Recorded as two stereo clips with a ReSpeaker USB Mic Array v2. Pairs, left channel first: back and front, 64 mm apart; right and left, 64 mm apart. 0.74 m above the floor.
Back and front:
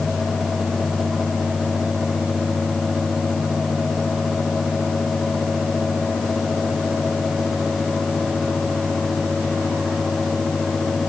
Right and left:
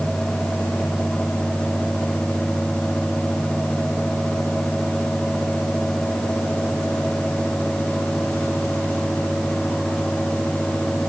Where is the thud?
I don't hear a thud.